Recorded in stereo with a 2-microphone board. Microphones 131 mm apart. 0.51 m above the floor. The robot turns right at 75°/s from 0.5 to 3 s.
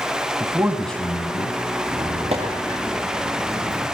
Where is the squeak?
85° right, 9 m; by 3.9 s centre (ahead or behind), 9 m.